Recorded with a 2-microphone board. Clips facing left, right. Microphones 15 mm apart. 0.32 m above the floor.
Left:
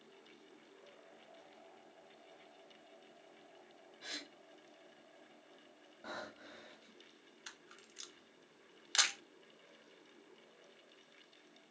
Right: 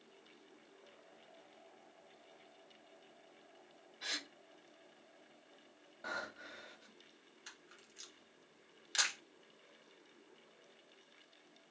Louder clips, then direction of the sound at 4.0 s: Right 5 dB; 30° right (ahead or behind).